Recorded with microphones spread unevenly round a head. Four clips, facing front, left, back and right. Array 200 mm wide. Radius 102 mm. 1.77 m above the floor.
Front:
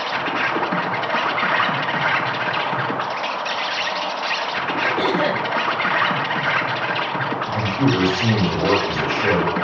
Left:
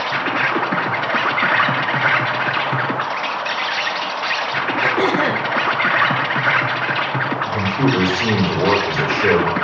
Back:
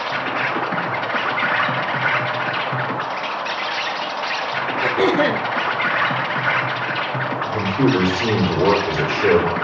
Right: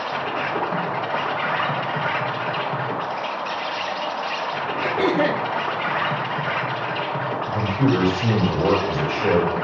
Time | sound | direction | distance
0.0 | an insect | 90° left | 1.5 m
4.8 | throat clearing | 170° left | 1.1 m
7.5 | a man speaking | 140° left | 5 m